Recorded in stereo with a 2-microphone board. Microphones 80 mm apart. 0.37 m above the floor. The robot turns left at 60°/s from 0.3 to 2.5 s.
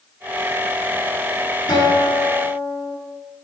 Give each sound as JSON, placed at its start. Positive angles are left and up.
{"t": 1.7, "sound": "a guitar", "azimuth_deg": 85, "distance_m": 3.5}